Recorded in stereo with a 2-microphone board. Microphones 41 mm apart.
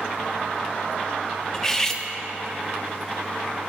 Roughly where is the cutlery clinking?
Centre.